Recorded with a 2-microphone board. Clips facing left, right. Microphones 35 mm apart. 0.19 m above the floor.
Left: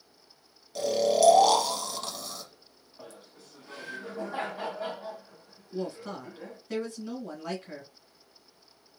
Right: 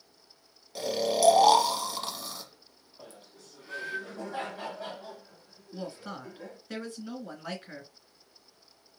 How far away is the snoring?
About 0.7 m.